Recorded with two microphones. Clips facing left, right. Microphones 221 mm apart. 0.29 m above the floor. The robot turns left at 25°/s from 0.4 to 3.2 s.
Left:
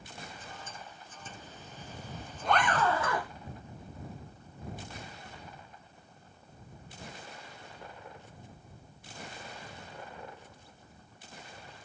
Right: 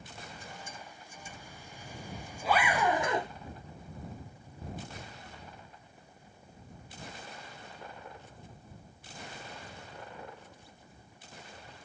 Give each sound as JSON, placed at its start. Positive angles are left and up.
{"t": 1.3, "sound": "a zipper", "side_deg": 25}